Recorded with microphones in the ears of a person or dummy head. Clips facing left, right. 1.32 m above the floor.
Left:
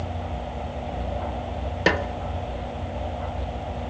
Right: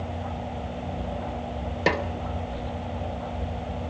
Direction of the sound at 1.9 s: 5° left (ahead or behind).